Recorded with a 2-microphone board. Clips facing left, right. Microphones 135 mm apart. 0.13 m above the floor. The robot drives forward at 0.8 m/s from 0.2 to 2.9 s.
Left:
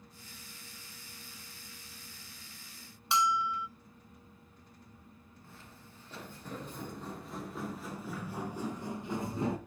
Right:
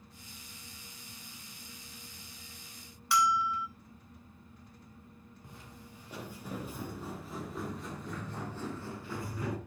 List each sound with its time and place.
3.1 s a bell: 25° left (ahead or behind), 1.2 m
5.4 s footsteps: 15° right (ahead or behind), 5.5 m; by 9.6 s 25° left (ahead or behind), 3.5 m